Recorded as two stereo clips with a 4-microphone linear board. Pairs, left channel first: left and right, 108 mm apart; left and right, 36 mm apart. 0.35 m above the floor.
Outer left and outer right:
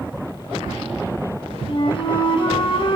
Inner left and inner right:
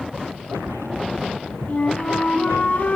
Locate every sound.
1.7 s a flute: 55° left (ahead or behind), 2.0 m